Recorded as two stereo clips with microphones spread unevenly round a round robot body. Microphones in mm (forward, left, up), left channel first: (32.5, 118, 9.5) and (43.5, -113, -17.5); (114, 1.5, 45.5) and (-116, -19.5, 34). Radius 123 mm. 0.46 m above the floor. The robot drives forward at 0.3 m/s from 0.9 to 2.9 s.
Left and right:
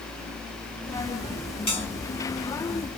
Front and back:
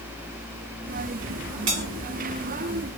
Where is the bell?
165° left, 1.5 m.